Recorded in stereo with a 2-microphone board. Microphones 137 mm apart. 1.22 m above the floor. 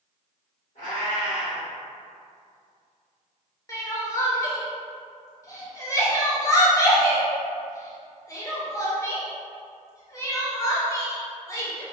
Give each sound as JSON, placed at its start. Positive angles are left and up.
{"t": 0.8, "sound": "a cat meowing", "side_deg": 65, "distance_m": 1.6}
{"t": 3.7, "sound": "crying", "side_deg": 25, "distance_m": 0.6}